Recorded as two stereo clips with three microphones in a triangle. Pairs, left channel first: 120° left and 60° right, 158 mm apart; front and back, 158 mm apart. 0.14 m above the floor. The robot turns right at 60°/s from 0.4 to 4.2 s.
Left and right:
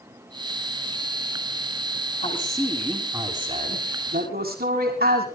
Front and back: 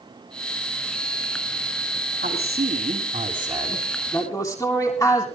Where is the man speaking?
165° left, 7 m; by 5.2 s 75° right, 7 m.